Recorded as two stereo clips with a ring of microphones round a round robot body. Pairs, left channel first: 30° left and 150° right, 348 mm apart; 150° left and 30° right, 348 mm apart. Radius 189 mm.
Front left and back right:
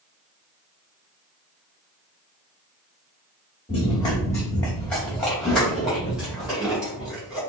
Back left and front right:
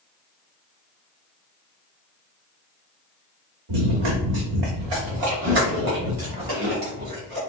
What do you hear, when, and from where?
3.7 s running footsteps: 45° right, 1.4 m; by 7.4 s 65° right, 5 m